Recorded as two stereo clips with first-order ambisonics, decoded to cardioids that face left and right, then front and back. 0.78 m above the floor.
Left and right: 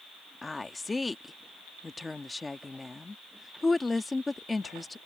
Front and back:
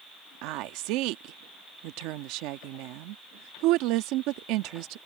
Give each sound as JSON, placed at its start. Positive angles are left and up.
{"t": 0.4, "sound": "a woman speaking", "azimuth_deg": 170}